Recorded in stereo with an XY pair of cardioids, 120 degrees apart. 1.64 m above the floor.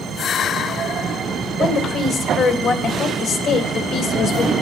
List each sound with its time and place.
1.6 s a woman speaking: 65° left, 2.5 m